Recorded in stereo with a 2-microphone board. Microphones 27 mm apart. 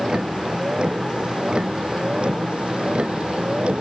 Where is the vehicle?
35° right (ahead or behind); by 3.8 s 45° right (ahead or behind).